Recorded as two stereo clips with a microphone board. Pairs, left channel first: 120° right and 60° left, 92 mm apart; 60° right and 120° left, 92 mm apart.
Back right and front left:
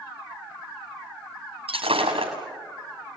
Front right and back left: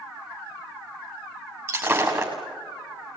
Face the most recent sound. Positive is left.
turn(degrees=60)